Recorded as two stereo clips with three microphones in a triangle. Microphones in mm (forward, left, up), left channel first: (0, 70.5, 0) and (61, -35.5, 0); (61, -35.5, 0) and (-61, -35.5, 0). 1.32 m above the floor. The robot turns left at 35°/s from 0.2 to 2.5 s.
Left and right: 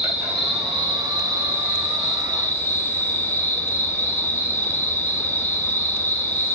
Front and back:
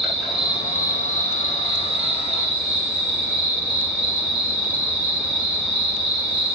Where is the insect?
90° right, 6 m; by 6.6 s 170° right, 6 m.